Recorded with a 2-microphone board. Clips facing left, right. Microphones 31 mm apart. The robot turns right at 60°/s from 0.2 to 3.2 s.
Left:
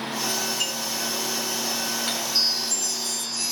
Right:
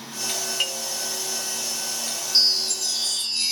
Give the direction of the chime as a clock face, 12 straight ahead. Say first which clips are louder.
Right 7 dB; 4 o'clock.